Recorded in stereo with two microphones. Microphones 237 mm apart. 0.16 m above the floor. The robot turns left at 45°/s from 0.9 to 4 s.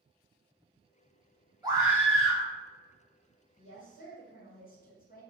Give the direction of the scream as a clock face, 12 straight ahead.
5 o'clock.